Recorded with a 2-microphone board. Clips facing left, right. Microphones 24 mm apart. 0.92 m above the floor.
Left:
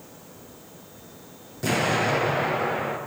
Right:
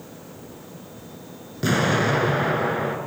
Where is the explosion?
30° right (ahead or behind), 6.5 m.